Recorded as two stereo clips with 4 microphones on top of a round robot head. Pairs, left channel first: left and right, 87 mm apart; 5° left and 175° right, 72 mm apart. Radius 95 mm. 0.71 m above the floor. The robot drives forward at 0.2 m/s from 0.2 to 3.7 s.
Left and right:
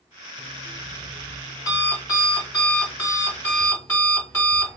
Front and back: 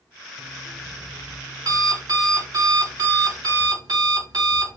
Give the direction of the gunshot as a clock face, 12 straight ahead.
I don't hear a gunshot.